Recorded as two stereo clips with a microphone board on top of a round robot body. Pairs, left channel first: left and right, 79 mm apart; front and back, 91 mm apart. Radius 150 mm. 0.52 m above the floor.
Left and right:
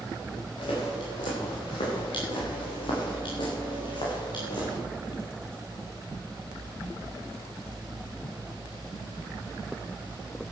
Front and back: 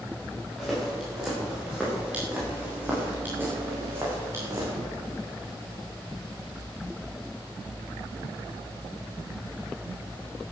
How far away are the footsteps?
About 6.5 m.